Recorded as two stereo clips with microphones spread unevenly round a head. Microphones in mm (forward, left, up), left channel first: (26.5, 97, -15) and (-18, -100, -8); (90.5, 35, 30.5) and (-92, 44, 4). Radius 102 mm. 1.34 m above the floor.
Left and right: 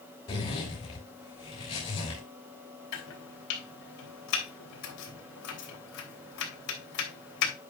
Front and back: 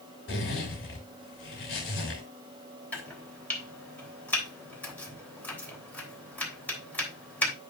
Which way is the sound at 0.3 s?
15° left.